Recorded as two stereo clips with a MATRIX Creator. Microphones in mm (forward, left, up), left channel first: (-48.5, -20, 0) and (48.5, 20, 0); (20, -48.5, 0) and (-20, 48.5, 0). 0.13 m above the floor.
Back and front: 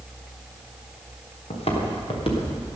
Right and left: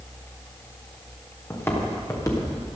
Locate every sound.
1.5 s footsteps: 135° right, 4 m; by 2.8 s 120° right, 3.5 m